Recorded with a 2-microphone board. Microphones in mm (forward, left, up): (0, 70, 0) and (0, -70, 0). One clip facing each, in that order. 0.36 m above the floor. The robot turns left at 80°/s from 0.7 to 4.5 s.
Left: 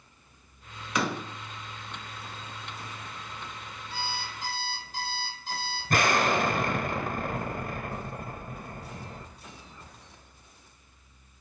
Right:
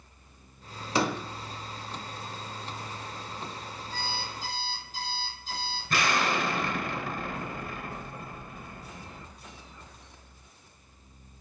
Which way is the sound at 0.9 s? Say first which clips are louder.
Right 2 dB; 35° right (ahead or behind).